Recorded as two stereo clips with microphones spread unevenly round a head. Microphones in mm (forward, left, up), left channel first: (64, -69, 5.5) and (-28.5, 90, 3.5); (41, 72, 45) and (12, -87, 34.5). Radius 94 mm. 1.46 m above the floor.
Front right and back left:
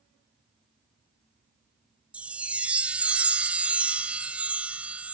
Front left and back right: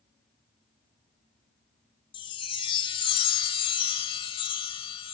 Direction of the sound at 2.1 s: 40° left.